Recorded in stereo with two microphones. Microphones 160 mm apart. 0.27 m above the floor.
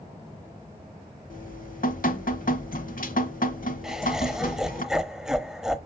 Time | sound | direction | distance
1.3 | dripping | 60° left (ahead or behind) | 1.1 m
3.8 | laughter | 5° right (ahead or behind) | 1.0 m